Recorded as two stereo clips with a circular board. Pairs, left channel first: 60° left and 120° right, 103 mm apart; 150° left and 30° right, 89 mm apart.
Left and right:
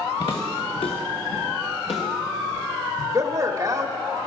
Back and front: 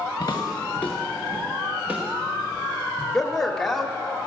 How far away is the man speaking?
About 1.2 m.